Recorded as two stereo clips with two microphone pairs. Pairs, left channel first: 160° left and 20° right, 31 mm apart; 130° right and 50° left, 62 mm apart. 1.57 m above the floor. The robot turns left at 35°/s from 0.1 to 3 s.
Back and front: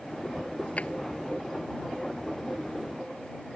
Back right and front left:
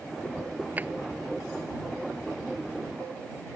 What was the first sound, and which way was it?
A drawer, 115° left.